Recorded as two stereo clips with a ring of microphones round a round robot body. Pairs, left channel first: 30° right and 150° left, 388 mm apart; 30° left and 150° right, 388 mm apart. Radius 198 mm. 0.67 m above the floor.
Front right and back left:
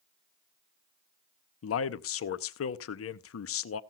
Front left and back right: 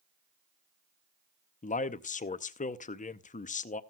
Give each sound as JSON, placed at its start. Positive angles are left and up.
{"t": 1.6, "sound": "a man speaking", "azimuth_deg": -25, "distance_m": 0.6}